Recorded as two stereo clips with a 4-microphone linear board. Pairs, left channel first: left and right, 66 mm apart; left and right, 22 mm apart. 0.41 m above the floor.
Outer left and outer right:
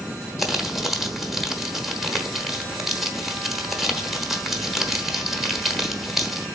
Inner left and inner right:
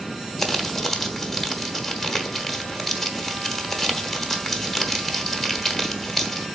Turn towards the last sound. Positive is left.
turn(degrees=0)  # may be behind; listen again after turning